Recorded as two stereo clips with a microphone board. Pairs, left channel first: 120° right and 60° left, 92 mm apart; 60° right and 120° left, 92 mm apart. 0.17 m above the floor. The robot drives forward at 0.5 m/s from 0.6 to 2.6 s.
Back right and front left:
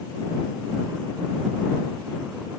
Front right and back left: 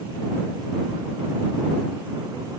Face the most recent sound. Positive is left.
No sound to turn to.